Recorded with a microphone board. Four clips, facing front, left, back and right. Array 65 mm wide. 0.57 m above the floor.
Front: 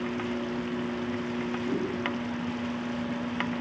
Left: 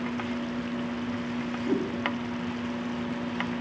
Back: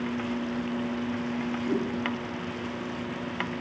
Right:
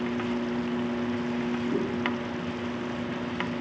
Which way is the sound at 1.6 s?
80° left.